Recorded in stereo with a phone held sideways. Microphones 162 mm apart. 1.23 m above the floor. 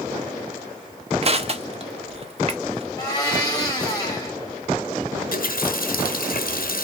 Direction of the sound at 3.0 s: 20° left (ahead or behind).